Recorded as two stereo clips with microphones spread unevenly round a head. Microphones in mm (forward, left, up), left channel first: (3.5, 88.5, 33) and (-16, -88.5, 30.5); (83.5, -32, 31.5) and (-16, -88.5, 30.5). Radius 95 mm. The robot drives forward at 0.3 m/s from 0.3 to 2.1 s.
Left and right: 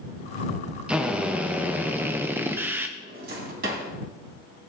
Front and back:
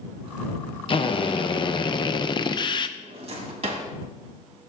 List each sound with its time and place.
0.9 s a drill: 15° right, 1.2 m; by 2.9 s 20° right, 0.9 m
3.0 s a drawer: 130° right, 2.0 m